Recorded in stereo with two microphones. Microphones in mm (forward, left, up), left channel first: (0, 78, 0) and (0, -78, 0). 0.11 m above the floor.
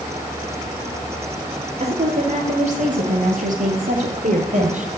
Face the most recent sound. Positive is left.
turn(degrees=-55)  # may be behind; listen again after turning